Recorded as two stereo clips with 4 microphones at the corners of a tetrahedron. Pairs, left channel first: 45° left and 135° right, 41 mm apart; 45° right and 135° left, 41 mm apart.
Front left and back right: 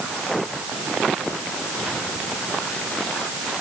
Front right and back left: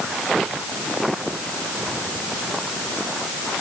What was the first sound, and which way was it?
Only background noise.